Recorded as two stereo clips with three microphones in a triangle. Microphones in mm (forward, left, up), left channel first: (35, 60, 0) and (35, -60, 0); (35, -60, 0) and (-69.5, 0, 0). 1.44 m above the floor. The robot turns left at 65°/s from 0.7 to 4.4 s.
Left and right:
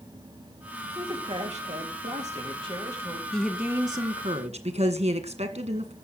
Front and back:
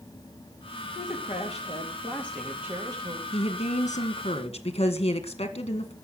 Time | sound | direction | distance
0.8 | a man speaking | 15° right | 3.5 m
3.3 | a woman speaking | 5° left | 1.8 m